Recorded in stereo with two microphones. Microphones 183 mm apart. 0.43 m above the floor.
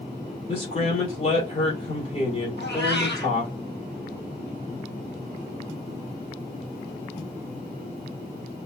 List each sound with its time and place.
0.5 s a man speaking: 35° left (ahead or behind), 1.8 m
2.6 s a cat meowing: 70° left (ahead or behind), 2 m